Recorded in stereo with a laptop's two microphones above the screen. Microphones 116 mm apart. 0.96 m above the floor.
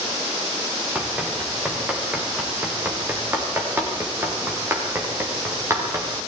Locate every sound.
0.9 s running footsteps: 10° right (ahead or behind), 6.5 m; by 6.2 s 25° right (ahead or behind), 8.5 m